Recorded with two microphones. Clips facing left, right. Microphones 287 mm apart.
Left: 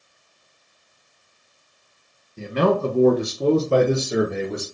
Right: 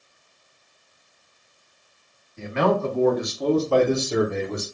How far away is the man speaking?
About 1.0 m.